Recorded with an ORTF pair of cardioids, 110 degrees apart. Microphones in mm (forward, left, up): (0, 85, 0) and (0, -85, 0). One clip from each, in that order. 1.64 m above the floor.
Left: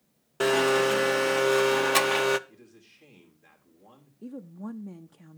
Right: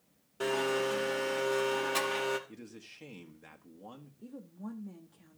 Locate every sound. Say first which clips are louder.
0.4 s a blender: left 8 dB; 50° left, 0.6 m
2.5 s a man speaking: right 4 dB; 55° right, 1.3 m
4.2 s a woman speaking: left 7 dB; 35° left, 0.6 m